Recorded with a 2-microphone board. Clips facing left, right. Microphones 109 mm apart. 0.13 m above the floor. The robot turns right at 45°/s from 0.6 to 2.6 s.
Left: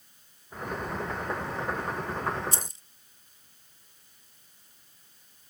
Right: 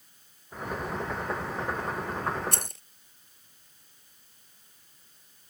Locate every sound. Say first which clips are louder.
2.5 s keys jangling: right 1 dB; 65° right (ahead or behind)